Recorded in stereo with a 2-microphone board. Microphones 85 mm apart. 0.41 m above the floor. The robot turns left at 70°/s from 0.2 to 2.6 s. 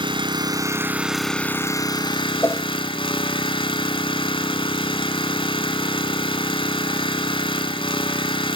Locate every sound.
0.0 s an engine running: 110° right, 1.3 m; by 8.6 s 80° left, 1.3 m
2.4 s a whoosh: 30° left (ahead or behind), 1.0 m; by 2.7 s 40° left (ahead or behind), 1.0 m